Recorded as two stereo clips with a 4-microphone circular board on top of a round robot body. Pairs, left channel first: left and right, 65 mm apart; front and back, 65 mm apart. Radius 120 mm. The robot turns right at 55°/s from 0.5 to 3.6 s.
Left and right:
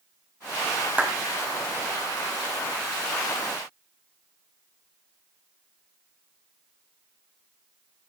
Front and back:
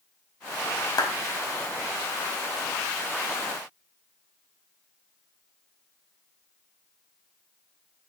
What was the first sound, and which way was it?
A clap, 20° right.